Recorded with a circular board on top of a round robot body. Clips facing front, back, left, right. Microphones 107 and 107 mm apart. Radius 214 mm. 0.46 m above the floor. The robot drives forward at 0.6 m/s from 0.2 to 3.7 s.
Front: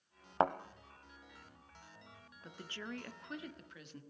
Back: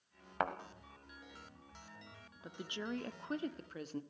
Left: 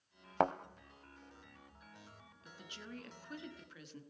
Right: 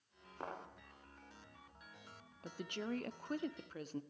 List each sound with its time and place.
0.4 s a thud: 65° left, 0.6 m; by 0.5 s 70° left, 0.6 m
2.4 s a woman speaking: 100° right, 1.3 m; by 4.0 s 135° right, 1.6 m